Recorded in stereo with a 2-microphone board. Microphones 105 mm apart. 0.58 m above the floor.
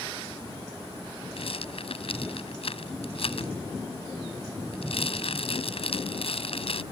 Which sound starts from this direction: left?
A rattle, at 1.4 s.